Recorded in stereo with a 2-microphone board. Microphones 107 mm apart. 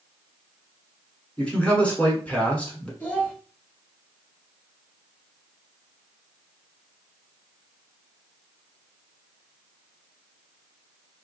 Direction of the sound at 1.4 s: 10° left (ahead or behind).